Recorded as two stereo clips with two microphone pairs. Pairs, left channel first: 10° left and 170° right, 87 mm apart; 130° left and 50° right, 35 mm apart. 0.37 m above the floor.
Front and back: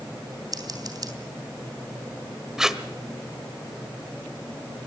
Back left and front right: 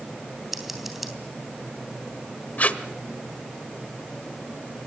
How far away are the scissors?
About 3 m.